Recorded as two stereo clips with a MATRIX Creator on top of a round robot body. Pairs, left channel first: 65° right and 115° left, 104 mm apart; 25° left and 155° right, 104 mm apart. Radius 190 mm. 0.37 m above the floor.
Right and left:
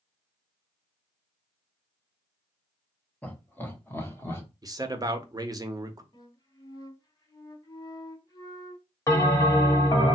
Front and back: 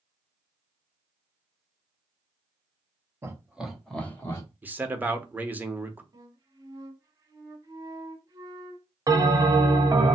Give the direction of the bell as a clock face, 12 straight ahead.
4 o'clock.